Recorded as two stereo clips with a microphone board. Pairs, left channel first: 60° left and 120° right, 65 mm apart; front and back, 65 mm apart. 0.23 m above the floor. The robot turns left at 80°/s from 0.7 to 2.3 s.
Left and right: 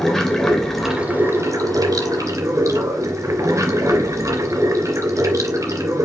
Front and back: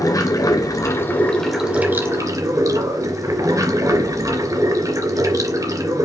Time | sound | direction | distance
0.0 | running water | 25° right | 3 m